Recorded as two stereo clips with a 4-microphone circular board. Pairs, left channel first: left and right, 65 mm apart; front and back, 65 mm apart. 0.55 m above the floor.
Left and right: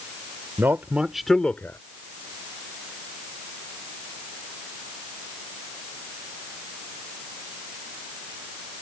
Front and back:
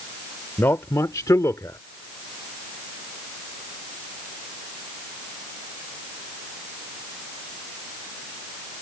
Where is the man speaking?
45° right; by 1.8 s 40° left.